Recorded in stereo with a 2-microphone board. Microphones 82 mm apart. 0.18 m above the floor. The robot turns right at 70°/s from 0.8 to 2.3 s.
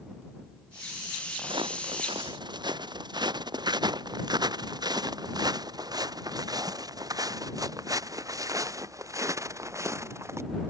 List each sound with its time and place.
1.4 s footsteps: 60° right (ahead or behind); by 10.4 s 30° right (ahead or behind)